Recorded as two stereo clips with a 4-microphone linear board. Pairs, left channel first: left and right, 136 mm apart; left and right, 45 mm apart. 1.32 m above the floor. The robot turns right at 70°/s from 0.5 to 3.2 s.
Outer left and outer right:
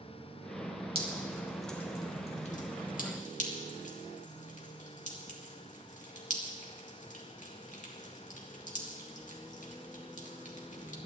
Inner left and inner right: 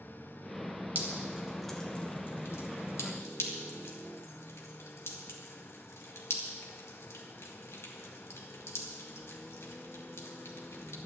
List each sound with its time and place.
0.9 s dripping: 45° right (ahead or behind), 2 m; by 11.0 s 65° left (ahead or behind), 2 m